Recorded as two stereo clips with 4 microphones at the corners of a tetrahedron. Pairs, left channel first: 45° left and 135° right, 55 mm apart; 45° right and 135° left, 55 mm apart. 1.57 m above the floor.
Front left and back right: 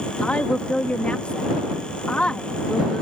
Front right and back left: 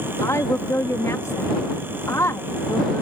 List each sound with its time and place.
0.2 s a woman speaking: 25° right